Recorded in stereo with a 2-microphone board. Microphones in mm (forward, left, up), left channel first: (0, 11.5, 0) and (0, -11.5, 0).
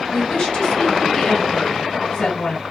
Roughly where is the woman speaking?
Left.